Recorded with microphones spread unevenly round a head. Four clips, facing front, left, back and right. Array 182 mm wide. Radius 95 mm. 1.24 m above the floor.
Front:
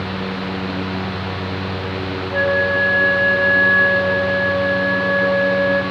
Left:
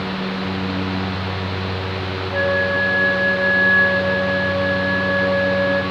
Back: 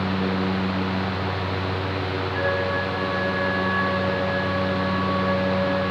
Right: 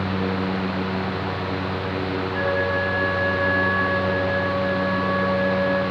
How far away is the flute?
About 3.5 m.